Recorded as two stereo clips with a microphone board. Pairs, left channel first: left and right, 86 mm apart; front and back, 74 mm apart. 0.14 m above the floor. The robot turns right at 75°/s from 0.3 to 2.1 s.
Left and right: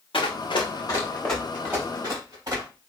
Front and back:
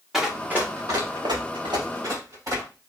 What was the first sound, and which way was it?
Running footsteps, 95° left.